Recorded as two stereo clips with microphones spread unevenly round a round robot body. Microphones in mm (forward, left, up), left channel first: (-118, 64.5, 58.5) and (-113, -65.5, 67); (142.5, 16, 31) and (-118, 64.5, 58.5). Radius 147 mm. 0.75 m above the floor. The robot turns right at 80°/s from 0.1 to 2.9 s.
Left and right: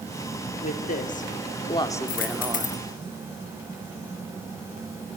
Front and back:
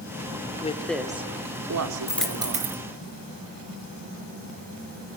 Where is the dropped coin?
70° left, 3 m; by 2.8 s 130° left, 3 m.